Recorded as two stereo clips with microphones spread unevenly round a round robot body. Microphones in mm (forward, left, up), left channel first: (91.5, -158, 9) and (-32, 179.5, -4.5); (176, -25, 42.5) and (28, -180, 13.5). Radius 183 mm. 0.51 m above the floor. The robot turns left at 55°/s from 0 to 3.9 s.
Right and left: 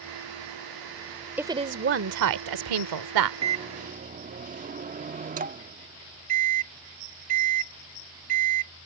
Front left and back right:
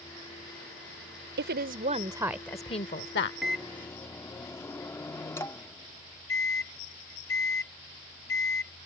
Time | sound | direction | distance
1.4 | a woman speaking | 165° right | ?
3.4 | a microwave | 155° left | ?